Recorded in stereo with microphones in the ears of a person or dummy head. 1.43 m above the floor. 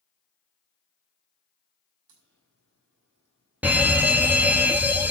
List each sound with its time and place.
2.1 s a crack: 65° right (ahead or behind), 6 m
3.6 s a fire alarm: 15° right (ahead or behind), 1.3 m